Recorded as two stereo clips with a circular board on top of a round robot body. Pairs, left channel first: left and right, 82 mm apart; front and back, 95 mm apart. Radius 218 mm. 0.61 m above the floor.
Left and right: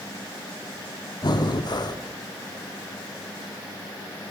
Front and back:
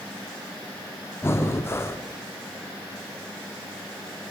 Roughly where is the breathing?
Ahead left.